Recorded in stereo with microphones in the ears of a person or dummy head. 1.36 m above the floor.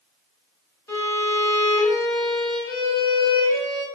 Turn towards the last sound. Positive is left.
turn(degrees=15)  # may be behind; listen again after turning